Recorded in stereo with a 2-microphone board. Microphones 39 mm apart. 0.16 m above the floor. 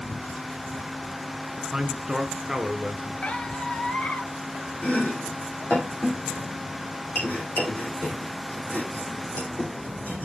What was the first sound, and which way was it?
A man speaking, 15° right (ahead or behind).